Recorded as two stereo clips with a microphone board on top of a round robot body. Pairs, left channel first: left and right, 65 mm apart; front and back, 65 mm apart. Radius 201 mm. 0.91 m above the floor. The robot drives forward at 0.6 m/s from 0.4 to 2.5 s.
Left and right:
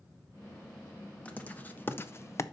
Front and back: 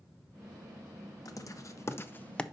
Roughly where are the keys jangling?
I don't hear keys jangling.